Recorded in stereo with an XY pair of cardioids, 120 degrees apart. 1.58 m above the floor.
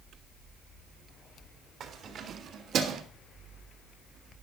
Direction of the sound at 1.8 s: 55° right.